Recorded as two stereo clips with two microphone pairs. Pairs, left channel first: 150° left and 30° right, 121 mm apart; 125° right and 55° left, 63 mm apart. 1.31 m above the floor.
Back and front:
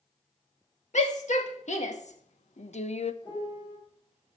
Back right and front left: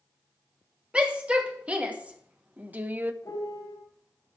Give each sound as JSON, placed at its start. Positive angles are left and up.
{"t": 0.9, "sound": "a shout", "azimuth_deg": 130, "distance_m": 2.5}
{"t": 3.2, "sound": "a piano", "azimuth_deg": -160, "distance_m": 5.5}